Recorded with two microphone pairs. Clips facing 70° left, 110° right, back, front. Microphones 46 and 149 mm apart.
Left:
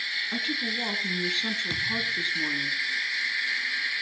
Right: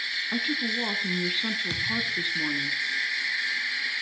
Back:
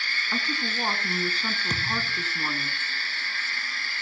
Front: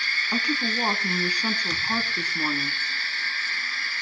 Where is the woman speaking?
40° right, 1.7 m.